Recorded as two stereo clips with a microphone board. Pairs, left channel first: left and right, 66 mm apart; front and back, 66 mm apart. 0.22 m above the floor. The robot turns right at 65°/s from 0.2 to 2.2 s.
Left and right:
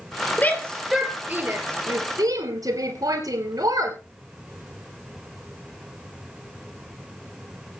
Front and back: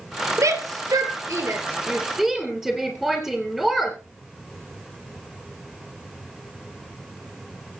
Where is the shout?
155° left, 3.5 m; by 4.0 s 90° right, 3.5 m.